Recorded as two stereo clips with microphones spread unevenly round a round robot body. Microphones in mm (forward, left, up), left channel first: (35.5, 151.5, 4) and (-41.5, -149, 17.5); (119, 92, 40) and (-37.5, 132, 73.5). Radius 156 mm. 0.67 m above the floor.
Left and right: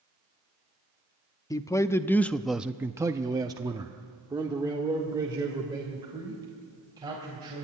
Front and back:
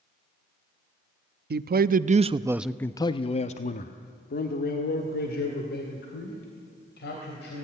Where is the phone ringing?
I don't hear a phone ringing.